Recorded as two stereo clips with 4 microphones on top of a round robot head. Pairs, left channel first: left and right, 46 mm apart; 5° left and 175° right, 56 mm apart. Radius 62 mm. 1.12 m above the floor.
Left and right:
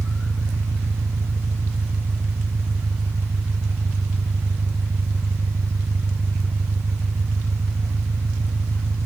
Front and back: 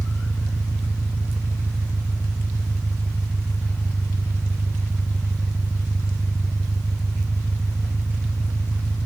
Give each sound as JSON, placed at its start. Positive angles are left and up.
{"t": 0.0, "sound": "an engine running", "azimuth_deg": -65}